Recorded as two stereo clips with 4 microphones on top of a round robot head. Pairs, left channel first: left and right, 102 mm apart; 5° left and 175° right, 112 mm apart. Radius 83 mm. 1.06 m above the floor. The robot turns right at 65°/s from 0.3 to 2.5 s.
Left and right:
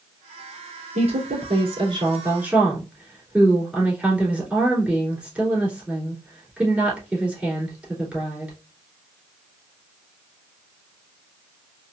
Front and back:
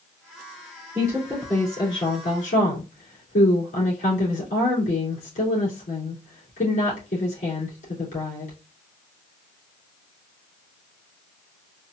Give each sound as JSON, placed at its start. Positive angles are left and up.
{"t": 0.9, "sound": "a woman speaking", "azimuth_deg": -110, "distance_m": 3.0}